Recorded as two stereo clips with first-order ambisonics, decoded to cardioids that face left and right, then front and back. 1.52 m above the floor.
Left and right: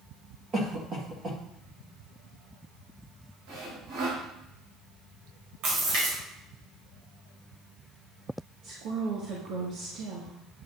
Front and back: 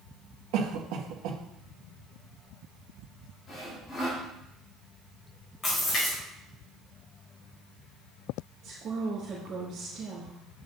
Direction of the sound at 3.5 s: 70° right.